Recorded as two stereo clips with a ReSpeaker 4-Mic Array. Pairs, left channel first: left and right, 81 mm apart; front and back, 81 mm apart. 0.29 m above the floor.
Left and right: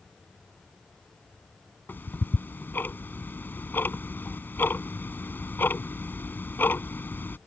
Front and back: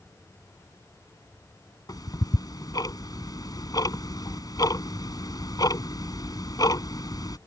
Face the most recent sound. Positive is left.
turn(degrees=25)